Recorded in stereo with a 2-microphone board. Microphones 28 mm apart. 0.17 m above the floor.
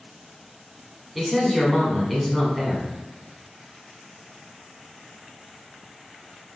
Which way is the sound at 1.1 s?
5° left (ahead or behind).